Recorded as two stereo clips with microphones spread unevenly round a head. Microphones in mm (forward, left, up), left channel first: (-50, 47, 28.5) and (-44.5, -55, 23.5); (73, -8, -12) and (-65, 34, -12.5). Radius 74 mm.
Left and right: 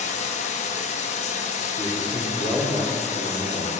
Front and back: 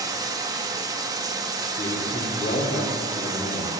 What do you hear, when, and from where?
0.0 s running water: 95° left, 0.9 m
1.8 s a man speaking: 35° left, 3 m